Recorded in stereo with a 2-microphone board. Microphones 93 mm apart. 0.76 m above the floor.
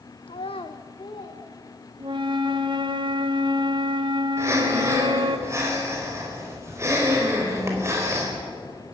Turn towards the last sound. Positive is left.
turn(degrees=-30)  # may be behind; listen again after turning